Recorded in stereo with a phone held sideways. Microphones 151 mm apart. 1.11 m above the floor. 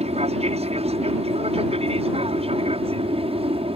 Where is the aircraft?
40° right (ahead or behind); by 3.8 s 35° right (ahead or behind).